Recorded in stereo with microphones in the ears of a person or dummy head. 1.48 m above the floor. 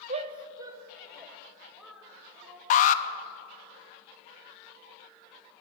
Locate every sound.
0.1 s a shout: 35° right (ahead or behind), 0.9 m; by 2.6 s 5° left (ahead or behind), 3 m
2.7 s an alarm: 40° left (ahead or behind), 0.6 m